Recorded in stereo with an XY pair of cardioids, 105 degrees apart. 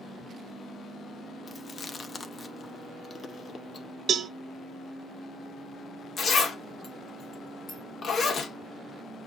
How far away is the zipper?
About 1.1 m.